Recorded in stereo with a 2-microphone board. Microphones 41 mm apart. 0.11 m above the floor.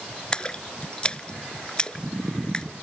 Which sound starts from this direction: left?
A splash, at 0.3 s.